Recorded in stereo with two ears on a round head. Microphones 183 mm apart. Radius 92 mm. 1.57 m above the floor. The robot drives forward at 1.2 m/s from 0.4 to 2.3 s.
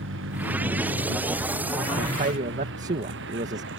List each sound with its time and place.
0.0 s a vehicle: 65° right (ahead or behind)
2.0 s a man speaking: 45° right (ahead or behind); by 3.7 s 40° right (ahead or behind)